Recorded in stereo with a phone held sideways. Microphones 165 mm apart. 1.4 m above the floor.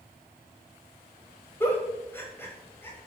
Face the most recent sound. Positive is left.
turn(degrees=15)  # may be behind; listen again after turning